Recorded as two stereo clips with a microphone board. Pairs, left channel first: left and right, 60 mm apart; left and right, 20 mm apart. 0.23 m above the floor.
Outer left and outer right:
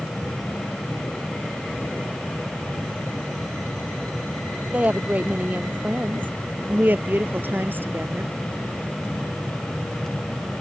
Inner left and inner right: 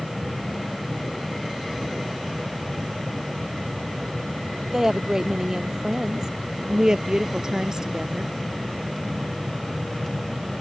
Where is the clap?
No clap in this recording.